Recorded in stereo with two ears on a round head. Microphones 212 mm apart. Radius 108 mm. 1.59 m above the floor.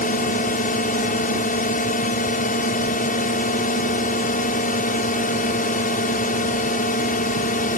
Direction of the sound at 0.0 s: 35° left (ahead or behind).